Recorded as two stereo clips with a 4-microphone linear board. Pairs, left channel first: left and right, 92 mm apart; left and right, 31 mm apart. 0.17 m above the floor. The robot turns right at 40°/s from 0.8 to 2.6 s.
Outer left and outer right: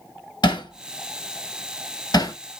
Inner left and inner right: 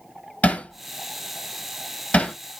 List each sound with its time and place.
0.4 s hammering: 55° left (ahead or behind), 0.9 m; by 2.4 s 40° left (ahead or behind), 0.9 m